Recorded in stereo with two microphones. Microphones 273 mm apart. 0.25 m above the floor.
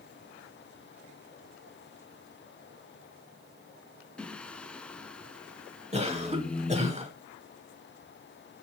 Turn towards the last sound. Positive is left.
turn(degrees=-25)  # may be behind; listen again after turning